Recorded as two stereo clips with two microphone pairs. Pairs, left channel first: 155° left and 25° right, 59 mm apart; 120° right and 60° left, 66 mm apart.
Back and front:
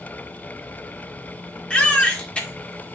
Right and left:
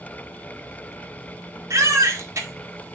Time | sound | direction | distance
1.7 | a baby crying | 90° left | 1.9 m